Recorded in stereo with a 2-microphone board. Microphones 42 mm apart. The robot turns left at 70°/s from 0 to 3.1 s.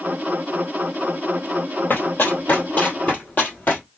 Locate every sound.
1.9 s running footsteps: 55° left (ahead or behind), 1.9 m; by 3.8 s 50° left (ahead or behind), 2.0 m